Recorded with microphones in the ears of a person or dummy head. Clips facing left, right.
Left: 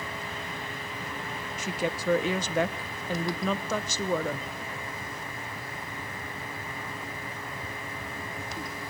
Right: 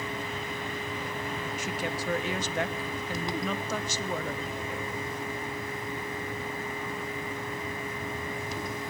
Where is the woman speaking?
75° left (ahead or behind), 0.6 m.